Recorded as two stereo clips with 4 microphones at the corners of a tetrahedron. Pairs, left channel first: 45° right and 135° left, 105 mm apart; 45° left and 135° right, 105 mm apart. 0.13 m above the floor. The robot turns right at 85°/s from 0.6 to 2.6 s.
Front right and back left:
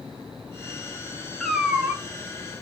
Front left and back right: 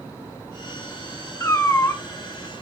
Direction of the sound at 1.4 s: 35° left.